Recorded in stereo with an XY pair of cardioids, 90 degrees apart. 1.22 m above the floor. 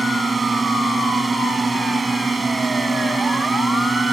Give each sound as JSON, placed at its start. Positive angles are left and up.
{"t": 0.0, "sound": "a drone", "azimuth_deg": -30}